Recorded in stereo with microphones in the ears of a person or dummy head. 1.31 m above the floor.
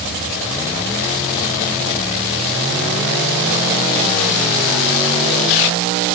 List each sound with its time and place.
Only background noise.